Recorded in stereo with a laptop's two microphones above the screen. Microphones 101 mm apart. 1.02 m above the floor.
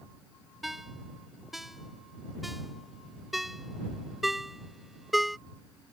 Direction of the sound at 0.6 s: Centre (ahead or behind).